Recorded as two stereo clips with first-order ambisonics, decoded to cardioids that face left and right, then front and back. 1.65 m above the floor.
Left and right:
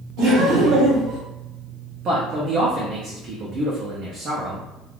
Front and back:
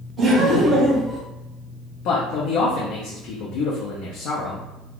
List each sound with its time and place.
0.2 s laughter: 105° right, 1.5 m; by 1.2 s 95° right, 0.9 m
2.0 s a man speaking: 30° right, 0.6 m